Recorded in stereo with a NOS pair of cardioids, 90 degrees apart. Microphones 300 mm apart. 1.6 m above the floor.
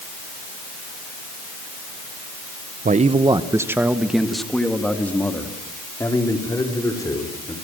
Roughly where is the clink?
I don't hear a clink.